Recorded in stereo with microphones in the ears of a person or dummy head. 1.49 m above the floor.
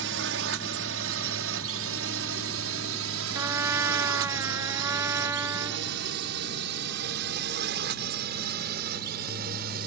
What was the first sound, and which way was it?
A drone, 65° right (ahead or behind).